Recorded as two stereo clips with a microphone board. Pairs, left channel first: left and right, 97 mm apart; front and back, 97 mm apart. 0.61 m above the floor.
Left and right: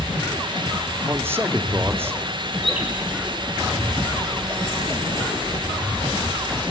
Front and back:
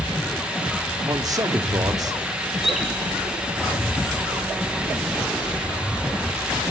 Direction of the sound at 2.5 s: 95° left.